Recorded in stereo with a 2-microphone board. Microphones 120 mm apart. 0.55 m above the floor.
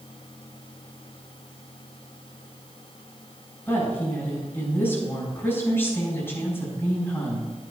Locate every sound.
3.7 s a woman speaking: 20° left (ahead or behind), 3.5 m